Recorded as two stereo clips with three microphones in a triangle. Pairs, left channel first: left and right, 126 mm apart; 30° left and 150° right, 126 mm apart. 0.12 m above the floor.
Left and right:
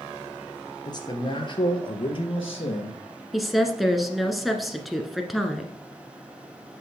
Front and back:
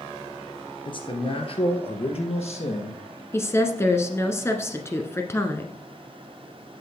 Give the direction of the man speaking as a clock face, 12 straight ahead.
10 o'clock.